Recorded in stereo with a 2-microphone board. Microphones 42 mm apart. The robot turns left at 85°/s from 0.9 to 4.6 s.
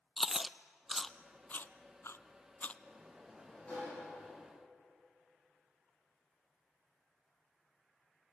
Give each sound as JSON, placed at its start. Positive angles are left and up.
{"t": 0.2, "sound": "chewing", "side_deg": -10, "distance_m": 0.6}
{"t": 2.9, "sound": "a sliding door", "azimuth_deg": -145, "distance_m": 6.5}